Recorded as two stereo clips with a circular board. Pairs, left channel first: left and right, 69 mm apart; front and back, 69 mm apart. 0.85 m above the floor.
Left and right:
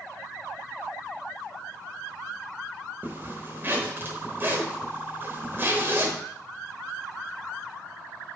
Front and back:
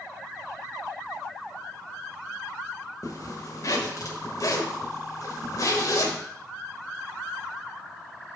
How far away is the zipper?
About 1.1 m.